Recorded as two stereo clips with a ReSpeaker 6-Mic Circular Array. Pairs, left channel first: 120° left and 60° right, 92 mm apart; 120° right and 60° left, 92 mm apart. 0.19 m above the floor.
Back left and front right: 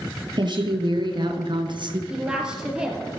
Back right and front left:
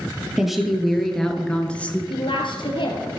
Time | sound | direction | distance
0.4 | a woman speaking | 25° right | 3.5 m
2.1 | a woman speaking | 140° right | 3.5 m